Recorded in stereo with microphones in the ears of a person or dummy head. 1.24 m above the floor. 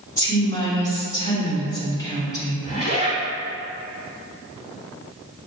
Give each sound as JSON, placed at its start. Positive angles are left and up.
{"t": 0.2, "sound": "a woman speaking", "side_deg": 20, "distance_m": 1.6}
{"t": 2.6, "sound": "a zipper", "side_deg": 25, "distance_m": 1.6}